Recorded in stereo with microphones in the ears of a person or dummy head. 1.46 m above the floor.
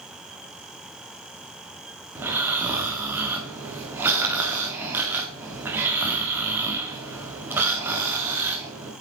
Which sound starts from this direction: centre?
Snoring, at 2.1 s.